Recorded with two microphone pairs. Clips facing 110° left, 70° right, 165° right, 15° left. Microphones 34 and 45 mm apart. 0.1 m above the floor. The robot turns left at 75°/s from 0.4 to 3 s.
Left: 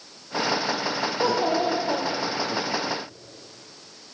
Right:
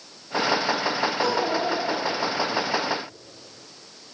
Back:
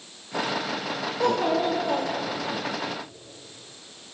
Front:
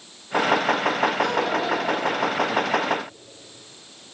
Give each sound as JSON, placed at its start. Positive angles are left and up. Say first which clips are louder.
{"t": 1.2, "sound": "a child speaking", "louder": "left 4 dB, even", "azimuth_deg": 165, "distance_m": 1.7}